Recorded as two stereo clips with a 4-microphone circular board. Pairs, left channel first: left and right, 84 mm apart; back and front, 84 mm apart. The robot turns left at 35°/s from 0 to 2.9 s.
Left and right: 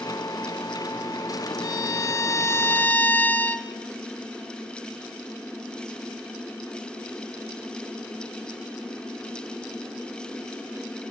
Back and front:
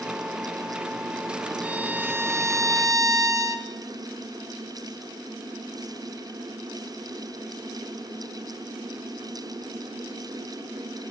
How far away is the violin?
About 1.3 m.